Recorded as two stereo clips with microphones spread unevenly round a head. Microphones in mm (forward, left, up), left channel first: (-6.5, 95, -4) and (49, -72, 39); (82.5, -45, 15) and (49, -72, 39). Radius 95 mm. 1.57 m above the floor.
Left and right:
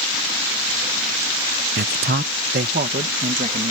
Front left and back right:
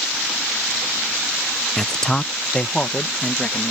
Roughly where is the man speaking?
Ahead right.